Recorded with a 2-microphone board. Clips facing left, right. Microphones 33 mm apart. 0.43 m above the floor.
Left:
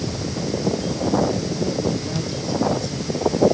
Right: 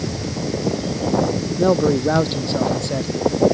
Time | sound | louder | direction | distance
1.6 | a man speaking | right 7 dB | 65° right (ahead or behind) | ?